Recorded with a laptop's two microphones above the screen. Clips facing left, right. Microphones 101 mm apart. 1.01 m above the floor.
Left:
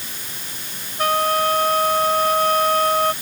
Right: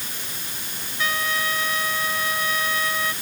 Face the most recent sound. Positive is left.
turn(degrees=55)  # may be behind; listen again after turning